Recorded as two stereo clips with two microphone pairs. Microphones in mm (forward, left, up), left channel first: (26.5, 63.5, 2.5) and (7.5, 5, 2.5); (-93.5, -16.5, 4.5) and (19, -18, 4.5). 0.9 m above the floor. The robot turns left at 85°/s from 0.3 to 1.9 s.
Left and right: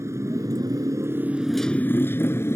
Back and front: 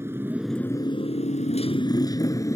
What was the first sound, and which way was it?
A motorcycle, 70° right.